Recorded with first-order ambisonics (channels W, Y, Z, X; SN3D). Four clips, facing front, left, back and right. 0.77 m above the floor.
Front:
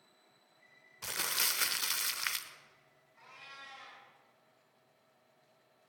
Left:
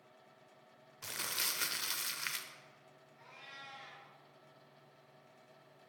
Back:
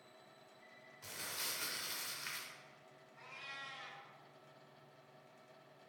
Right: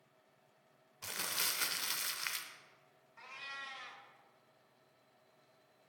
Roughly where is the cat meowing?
Right.